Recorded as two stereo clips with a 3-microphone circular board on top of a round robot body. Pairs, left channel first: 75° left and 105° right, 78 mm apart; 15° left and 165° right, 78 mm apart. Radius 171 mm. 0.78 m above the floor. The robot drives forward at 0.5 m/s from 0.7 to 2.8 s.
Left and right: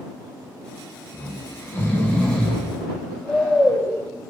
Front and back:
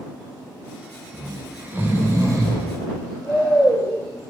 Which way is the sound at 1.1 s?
105° left.